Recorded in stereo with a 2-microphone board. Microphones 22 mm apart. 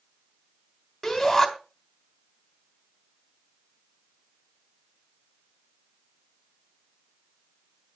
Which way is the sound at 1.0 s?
10° left (ahead or behind).